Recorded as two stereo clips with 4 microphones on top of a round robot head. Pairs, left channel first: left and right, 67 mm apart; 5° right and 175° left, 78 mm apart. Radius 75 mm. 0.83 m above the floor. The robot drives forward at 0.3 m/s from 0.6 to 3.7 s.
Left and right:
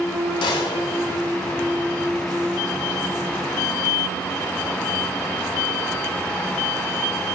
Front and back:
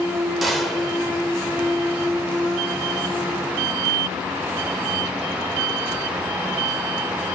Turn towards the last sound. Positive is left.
turn(degrees=115)